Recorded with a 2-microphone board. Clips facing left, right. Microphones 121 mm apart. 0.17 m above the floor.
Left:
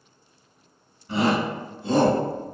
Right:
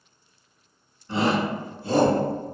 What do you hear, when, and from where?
1.1 s a shout: 10° left (ahead or behind), 1.5 m; by 2.2 s 25° left (ahead or behind), 1.3 m